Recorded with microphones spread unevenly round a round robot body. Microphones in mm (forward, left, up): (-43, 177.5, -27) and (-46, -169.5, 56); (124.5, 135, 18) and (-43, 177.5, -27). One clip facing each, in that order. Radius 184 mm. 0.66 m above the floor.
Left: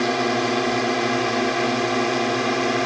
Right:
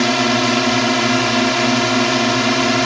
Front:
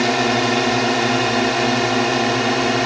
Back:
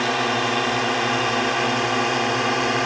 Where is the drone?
75° right; by 2.9 s 85° right.